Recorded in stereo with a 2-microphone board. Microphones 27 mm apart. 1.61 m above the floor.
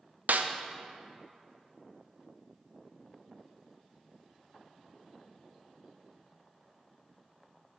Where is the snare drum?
80° right, 0.8 m.